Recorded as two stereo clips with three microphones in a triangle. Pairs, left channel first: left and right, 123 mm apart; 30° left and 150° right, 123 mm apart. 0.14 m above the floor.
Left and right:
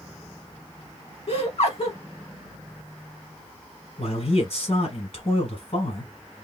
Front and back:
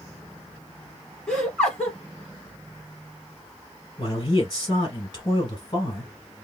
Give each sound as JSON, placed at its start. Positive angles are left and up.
{"t": 1.3, "sound": "laughter", "azimuth_deg": 115, "distance_m": 2.5}
{"t": 4.0, "sound": "a man speaking", "azimuth_deg": 80, "distance_m": 3.0}